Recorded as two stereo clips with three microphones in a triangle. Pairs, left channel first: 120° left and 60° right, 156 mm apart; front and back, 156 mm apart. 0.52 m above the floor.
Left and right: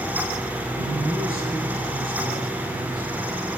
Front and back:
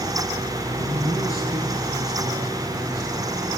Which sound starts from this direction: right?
A man speaking, at 0.8 s.